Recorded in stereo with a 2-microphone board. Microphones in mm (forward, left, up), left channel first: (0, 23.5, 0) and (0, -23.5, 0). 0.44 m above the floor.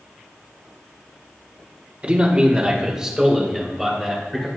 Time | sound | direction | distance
2.0 | a man speaking | 30° right (ahead or behind) | 1.6 m